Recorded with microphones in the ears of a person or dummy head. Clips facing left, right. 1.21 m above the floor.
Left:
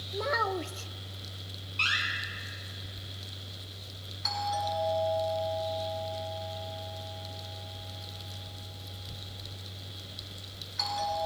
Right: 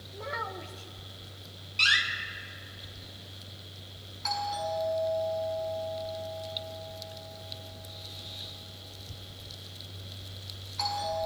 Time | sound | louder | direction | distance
0.1 | a child speaking | left 8 dB | 70° left (ahead or behind) | 0.6 m
1.8 | a door slam | right 3 dB | 25° right (ahead or behind) | 2.5 m
4.2 | a doorbell | even | 15° left (ahead or behind) | 6 m